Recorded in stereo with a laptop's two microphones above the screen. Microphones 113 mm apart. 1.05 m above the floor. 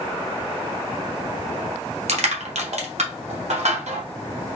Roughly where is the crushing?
Right.